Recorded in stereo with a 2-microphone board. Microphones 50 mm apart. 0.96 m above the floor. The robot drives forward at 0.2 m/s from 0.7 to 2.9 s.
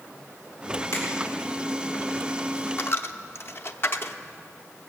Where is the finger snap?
80° left, 5 m.